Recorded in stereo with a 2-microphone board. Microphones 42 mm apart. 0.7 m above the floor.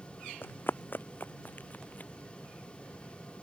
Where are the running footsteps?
55° left (ahead or behind); by 2.1 s 40° left (ahead or behind).